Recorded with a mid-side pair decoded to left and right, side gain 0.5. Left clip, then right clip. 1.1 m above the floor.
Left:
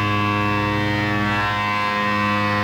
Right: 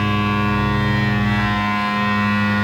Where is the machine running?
5° left, 1.8 m.